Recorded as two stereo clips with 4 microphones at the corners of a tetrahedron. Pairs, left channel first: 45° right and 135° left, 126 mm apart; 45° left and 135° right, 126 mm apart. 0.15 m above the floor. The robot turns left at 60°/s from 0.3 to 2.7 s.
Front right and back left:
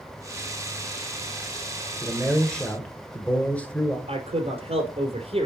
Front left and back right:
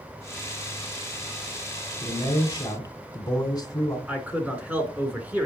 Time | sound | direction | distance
2.0 | a man speaking | 65° left | 1.3 m
4.1 | a man speaking | 150° left | 1.9 m